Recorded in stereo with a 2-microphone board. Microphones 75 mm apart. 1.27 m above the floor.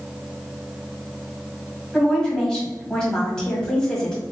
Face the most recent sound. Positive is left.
turn(degrees=10)  # may be behind; listen again after turning